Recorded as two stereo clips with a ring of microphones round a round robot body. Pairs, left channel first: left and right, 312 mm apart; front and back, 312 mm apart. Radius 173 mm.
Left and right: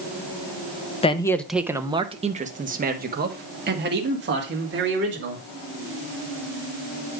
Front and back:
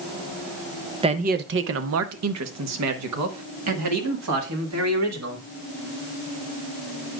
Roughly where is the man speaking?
Behind left.